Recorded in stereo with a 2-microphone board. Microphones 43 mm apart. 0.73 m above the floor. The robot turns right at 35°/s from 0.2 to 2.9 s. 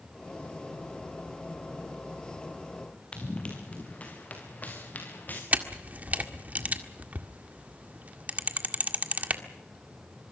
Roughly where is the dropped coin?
I don't hear a dropped coin.